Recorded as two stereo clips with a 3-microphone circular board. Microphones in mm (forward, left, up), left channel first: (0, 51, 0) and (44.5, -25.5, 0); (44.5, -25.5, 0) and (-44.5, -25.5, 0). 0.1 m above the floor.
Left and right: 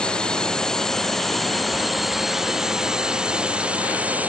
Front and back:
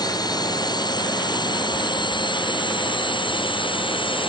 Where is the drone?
40° left; by 4.3 s 15° left.